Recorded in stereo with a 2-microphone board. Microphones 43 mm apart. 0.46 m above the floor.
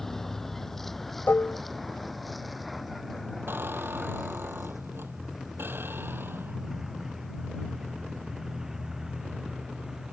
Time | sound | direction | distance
0.0 | a vehicle | 10° left (ahead or behind) | ?
1.3 | dishes clattering | 60° left (ahead or behind) | ?
3.5 | a squeak | 70° right (ahead or behind) | ?